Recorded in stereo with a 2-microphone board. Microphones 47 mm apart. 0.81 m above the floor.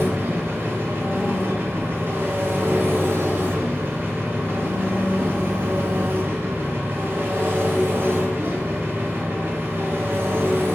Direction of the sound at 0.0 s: 60° right (ahead or behind).